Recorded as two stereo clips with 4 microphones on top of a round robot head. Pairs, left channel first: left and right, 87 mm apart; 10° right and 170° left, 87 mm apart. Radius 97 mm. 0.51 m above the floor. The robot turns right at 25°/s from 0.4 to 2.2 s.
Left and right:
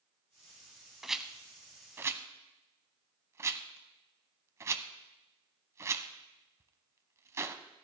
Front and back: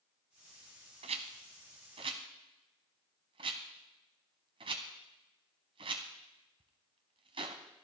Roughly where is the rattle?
Behind.